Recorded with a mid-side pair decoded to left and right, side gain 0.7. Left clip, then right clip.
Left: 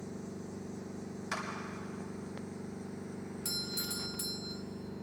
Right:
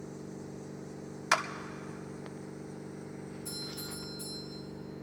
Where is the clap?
50° right, 1.0 m.